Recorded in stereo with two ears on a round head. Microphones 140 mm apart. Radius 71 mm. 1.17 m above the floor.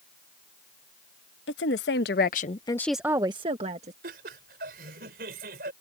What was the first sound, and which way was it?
A woman speaking, 80° left.